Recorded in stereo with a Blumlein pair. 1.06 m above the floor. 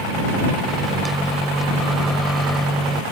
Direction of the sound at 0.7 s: Straight ahead.